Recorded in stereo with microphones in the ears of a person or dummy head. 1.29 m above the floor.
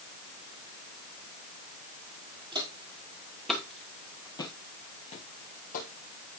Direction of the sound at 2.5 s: 15° right (ahead or behind).